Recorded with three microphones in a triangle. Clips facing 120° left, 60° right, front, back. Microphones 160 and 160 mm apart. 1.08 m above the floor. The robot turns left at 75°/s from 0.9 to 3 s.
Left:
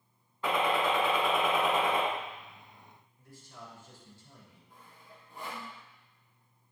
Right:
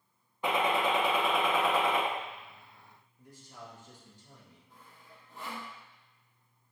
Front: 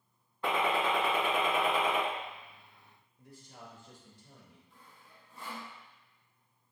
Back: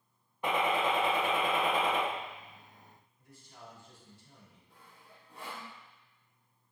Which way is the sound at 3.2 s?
15° left.